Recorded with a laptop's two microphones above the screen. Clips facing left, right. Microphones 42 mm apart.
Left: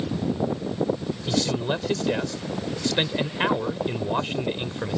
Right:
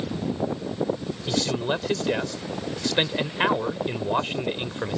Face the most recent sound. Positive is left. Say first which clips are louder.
# even
turn(degrees=-10)  # may be behind; listen again after turning